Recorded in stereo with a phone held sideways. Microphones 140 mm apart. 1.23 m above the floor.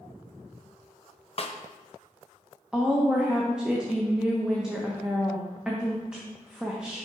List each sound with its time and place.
1.4 s a snare drum: 45° left (ahead or behind), 0.5 m
2.7 s a woman speaking: 5° right (ahead or behind), 0.8 m